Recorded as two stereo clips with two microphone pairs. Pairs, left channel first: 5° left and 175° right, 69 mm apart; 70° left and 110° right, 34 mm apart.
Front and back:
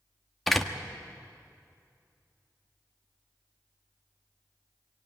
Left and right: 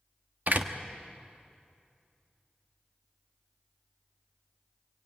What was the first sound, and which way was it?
A door slam, 80° right.